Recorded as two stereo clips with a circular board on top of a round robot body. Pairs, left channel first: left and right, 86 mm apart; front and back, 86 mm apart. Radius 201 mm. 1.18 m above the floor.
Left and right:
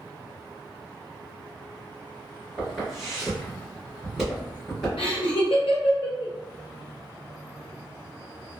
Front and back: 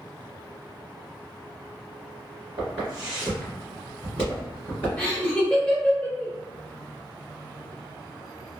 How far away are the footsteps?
About 1.4 m.